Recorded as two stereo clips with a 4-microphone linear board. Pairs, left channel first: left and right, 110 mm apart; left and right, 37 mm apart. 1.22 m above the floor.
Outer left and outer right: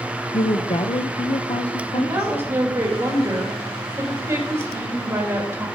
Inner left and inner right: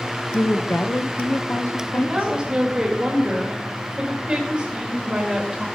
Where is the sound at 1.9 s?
25° right (ahead or behind), 2.5 m.